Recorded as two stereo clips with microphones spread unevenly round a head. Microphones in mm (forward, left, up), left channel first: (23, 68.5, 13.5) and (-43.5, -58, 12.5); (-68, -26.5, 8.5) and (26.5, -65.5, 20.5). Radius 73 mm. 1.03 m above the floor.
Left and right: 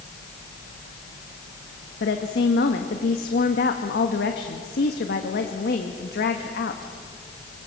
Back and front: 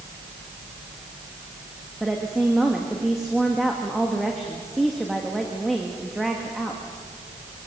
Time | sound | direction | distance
2.0 | a woman speaking | 65° left | 1.5 m